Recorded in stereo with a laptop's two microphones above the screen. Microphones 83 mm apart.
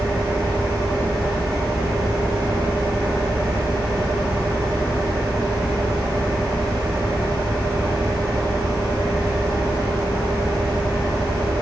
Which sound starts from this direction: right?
A fan, at 0.0 s.